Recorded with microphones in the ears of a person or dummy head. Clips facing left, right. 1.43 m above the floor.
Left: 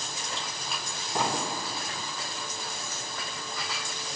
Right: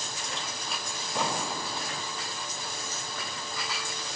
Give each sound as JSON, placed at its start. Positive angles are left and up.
{"t": 1.1, "sound": "an explosion", "side_deg": 45, "distance_m": 4.0}